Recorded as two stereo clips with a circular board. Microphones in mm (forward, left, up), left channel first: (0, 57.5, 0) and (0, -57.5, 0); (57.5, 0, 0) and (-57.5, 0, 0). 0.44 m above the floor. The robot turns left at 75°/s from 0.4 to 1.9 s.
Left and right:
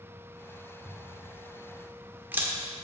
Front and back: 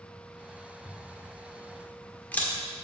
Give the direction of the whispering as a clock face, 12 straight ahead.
I don't hear whispering.